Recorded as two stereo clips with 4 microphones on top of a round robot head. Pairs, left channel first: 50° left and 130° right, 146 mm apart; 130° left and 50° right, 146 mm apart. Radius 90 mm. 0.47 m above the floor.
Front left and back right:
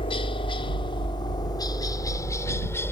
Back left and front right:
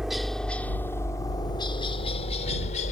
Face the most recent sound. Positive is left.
turn(degrees=120)